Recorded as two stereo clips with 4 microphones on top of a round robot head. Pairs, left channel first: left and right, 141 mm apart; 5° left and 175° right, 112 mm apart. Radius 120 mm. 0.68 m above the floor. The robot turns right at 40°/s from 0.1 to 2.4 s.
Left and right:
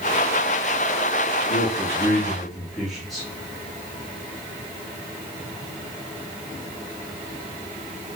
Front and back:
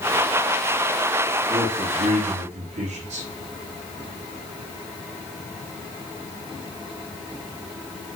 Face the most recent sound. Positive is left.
turn(degrees=180)